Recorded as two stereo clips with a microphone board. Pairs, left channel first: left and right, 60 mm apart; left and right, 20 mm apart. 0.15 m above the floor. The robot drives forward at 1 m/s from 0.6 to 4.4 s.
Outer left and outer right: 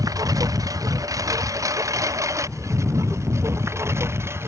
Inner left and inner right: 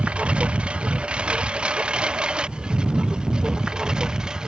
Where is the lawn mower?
75° right (ahead or behind); by 4.5 s 45° right (ahead or behind).